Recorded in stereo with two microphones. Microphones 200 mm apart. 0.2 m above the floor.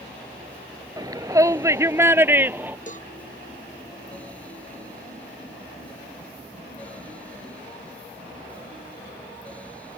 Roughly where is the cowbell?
Left.